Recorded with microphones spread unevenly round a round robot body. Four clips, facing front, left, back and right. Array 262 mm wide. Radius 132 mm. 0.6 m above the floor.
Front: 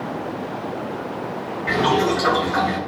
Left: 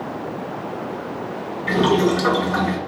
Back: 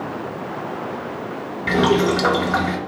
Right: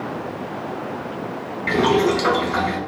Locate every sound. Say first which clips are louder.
1.7 s boiling: even, back 2 dB; 175° right, 1.0 m